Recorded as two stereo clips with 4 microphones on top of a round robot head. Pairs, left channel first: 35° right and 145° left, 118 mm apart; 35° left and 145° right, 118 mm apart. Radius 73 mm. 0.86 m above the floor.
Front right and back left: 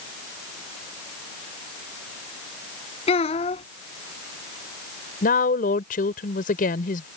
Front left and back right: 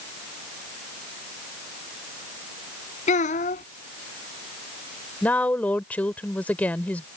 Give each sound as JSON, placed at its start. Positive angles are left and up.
{"t": 3.1, "sound": "a child speaking", "azimuth_deg": 5}
{"t": 5.2, "sound": "a woman speaking", "azimuth_deg": -45}